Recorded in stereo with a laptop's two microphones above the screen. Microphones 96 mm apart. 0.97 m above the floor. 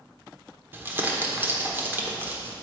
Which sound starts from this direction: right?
Crumpling, at 0.7 s.